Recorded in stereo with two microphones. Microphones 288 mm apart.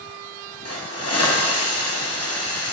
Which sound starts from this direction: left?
A hiss, at 0.7 s.